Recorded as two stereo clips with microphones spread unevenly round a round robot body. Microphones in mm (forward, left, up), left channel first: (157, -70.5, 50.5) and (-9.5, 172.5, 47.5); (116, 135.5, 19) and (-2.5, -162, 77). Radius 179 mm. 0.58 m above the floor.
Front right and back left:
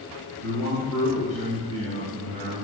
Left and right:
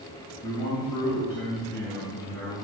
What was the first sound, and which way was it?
A man speaking, 150° left.